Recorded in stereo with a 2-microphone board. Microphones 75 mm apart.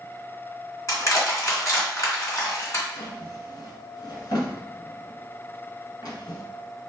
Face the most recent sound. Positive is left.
turn(degrees=65)  # may be behind; listen again after turning